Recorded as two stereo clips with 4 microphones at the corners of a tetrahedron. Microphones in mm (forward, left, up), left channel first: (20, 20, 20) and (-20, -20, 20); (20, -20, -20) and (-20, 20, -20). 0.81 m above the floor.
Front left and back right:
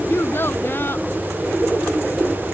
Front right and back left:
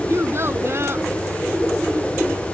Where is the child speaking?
90° left.